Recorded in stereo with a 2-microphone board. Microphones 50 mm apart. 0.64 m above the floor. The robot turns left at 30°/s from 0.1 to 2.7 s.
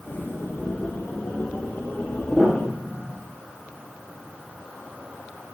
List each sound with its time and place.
2.3 s a piano: 30° right (ahead or behind), 5 m; by 3.2 s 20° right (ahead or behind), 5 m